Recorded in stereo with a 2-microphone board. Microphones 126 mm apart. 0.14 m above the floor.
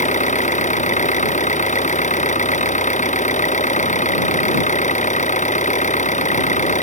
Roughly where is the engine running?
Left.